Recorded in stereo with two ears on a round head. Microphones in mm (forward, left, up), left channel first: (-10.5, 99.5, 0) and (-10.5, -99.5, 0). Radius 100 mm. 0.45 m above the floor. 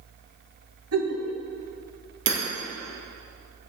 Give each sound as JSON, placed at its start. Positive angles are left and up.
{"t": 0.9, "sound": "a giggle", "side_deg": -75, "distance_m": 2.0}
{"t": 2.3, "sound": "hammering", "side_deg": -55, "distance_m": 3.0}